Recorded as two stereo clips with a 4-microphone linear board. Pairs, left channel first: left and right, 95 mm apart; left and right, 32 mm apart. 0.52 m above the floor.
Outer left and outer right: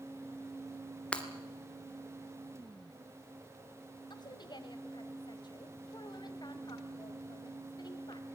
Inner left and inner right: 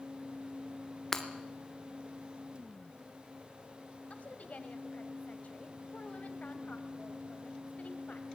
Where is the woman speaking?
50° left (ahead or behind), 2.5 m.